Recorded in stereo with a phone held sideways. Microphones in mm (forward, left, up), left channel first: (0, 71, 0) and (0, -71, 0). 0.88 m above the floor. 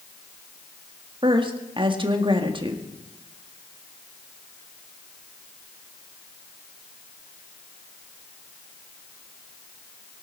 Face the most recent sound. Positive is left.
turn(degrees=-35)  # may be behind; listen again after turning